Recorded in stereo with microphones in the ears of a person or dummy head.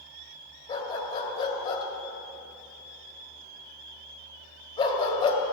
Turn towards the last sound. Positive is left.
turn(degrees=25)  # may be behind; listen again after turning